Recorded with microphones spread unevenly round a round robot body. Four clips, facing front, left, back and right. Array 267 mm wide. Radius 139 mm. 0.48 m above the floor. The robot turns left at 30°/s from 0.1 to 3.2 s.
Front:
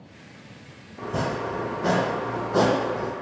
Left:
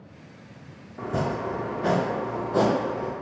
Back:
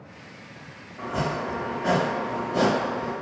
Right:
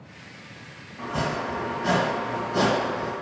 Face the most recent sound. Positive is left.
turn(degrees=-5)